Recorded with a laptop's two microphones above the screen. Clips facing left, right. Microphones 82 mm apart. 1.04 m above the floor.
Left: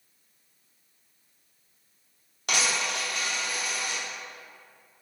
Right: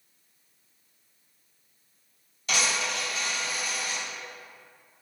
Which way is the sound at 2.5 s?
65° left (ahead or behind).